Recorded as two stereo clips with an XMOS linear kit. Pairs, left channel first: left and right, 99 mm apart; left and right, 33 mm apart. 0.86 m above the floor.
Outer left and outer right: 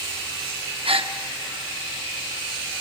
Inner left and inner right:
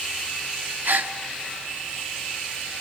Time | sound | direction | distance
0.8 | a gasp | 65° right (ahead or behind) | 0.7 m